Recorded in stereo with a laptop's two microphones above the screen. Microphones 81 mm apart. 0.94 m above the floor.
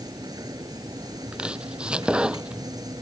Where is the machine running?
50° right (ahead or behind).